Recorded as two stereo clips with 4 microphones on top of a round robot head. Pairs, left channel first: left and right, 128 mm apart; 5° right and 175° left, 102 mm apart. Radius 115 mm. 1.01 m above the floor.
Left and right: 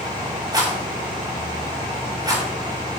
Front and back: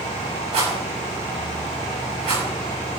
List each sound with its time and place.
0.5 s a rattle: 150° right, 7 m